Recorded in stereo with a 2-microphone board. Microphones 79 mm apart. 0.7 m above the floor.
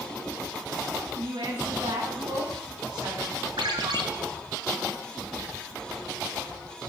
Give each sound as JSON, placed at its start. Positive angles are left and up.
{"t": 1.1, "sound": "a woman speaking", "side_deg": -60, "distance_m": 7.0}
{"t": 3.6, "sound": "a ringtone", "side_deg": -90, "distance_m": 2.0}